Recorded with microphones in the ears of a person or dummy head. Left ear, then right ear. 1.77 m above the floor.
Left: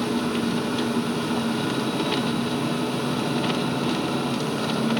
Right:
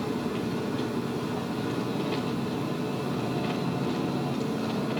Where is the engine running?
50° left (ahead or behind), 0.9 m.